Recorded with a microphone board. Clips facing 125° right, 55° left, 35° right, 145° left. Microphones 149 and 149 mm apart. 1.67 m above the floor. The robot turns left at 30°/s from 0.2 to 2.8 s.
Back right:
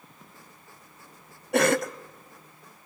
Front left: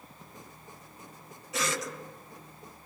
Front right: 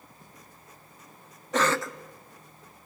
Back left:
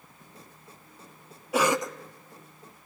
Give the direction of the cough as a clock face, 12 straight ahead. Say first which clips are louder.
Back right 11 dB, back left 1 dB; 4 o'clock.